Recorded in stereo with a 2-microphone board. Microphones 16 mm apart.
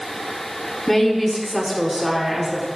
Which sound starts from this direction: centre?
A woman speaking, at 0.9 s.